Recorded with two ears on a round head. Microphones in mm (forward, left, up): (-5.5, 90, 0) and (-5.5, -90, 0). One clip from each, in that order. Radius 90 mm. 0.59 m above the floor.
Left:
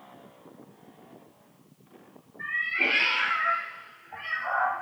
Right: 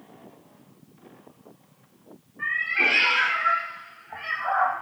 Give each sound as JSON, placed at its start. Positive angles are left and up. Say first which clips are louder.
{"t": 2.4, "sound": "a cat meowing", "louder": "right 4 dB", "side_deg": -50, "distance_m": 4.5}